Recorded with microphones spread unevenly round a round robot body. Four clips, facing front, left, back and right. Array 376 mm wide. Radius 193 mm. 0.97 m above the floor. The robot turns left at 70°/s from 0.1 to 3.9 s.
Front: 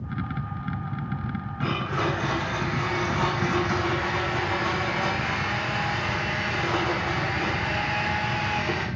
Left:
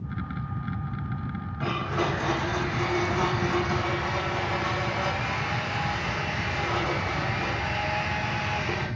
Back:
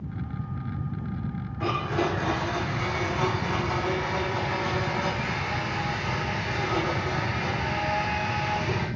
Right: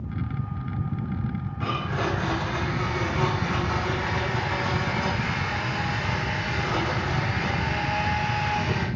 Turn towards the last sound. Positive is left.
turn(degrees=5)